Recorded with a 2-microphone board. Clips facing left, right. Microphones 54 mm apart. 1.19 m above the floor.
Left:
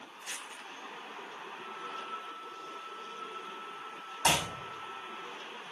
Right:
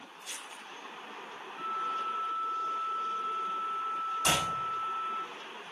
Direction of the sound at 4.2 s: 60° left (ahead or behind).